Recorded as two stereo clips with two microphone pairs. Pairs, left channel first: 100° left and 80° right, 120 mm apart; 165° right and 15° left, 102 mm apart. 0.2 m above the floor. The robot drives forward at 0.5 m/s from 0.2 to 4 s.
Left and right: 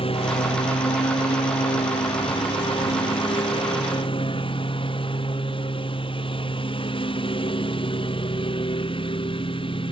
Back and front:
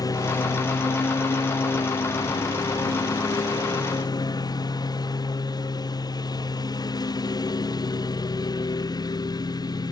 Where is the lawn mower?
140° left; by 9.9 s 145° left.